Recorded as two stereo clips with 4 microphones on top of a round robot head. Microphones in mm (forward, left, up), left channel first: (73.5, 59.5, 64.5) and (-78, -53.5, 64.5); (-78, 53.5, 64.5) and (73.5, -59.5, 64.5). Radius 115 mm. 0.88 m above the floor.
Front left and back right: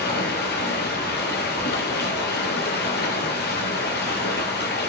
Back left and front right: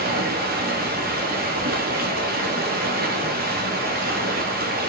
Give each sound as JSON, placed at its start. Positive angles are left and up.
{"t": 0.0, "sound": "running water", "azimuth_deg": 0, "distance_m": 1.5}